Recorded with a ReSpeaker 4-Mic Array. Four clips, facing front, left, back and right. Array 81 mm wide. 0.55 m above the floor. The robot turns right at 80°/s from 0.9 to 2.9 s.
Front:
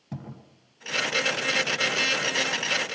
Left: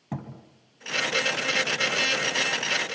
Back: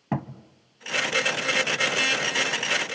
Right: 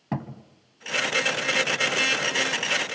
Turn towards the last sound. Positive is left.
turn(degrees=0)